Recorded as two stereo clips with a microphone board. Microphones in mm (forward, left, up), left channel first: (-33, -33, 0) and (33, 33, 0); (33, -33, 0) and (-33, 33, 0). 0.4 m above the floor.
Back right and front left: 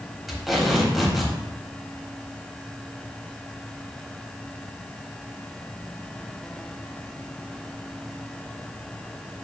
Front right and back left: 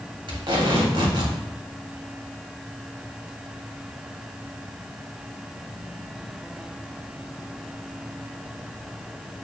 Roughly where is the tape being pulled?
Behind left.